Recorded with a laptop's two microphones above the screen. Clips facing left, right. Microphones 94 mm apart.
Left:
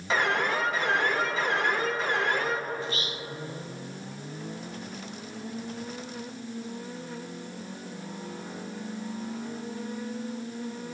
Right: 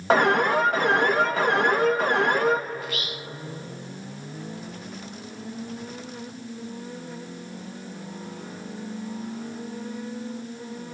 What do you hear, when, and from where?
0.1 s an alarm: 50° right (ahead or behind), 2 m
2.8 s whispering: 30° left (ahead or behind), 0.5 m